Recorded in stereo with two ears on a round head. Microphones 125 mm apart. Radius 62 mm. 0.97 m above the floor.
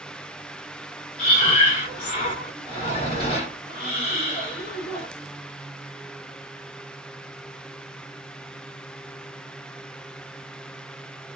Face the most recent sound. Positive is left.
turn(degrees=45)  # may be behind; listen again after turning